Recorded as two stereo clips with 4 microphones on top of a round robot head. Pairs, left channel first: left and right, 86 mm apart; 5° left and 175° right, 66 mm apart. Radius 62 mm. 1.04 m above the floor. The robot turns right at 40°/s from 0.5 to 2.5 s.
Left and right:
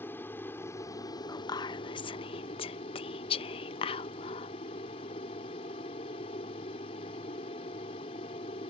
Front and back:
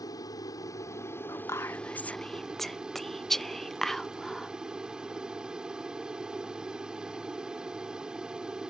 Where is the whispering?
40° left; by 4.5 s 85° left.